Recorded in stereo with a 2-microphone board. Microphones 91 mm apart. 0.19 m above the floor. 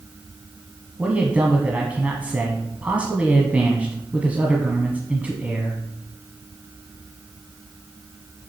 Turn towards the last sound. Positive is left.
turn(degrees=-15)  # may be behind; listen again after turning